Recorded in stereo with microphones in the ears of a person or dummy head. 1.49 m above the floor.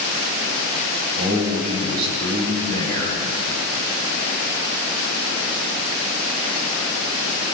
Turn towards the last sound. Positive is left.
turn(degrees=-55)  # may be behind; listen again after turning